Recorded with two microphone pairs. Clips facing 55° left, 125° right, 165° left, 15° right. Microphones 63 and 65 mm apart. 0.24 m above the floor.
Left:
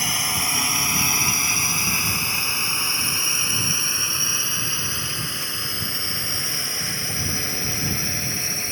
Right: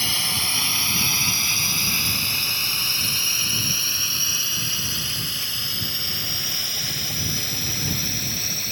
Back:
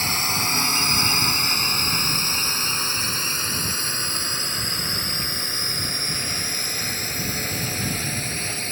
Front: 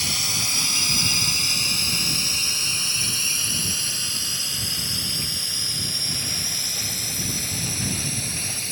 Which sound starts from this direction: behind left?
A drone, at 0.0 s.